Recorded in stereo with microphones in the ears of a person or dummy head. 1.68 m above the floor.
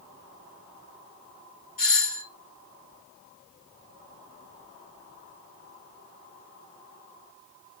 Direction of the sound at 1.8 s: 45° left (ahead or behind).